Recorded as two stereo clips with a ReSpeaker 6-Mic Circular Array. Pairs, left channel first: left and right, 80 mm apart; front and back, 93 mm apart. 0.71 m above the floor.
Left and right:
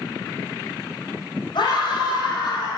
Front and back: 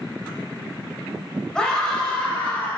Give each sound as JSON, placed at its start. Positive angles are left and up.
{"t": 1.6, "sound": "a scream", "azimuth_deg": 80, "distance_m": 3.5}